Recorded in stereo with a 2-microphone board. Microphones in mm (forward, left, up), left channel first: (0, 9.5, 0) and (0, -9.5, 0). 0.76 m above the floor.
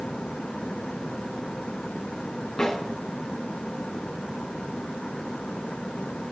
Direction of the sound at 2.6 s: 40° left (ahead or behind).